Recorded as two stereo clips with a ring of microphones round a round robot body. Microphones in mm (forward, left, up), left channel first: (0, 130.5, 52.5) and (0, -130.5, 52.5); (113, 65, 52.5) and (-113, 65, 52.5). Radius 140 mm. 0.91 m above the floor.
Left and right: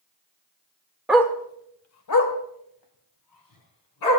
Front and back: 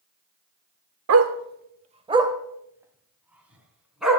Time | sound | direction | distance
1.1 | a dog barking | 175° right | 0.8 m